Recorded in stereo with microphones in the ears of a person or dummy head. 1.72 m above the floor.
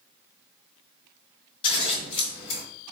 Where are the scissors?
30° left (ahead or behind), 1.6 m.